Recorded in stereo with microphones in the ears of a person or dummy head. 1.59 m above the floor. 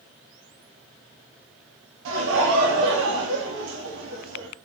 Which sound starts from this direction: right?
Laughter, at 2.0 s.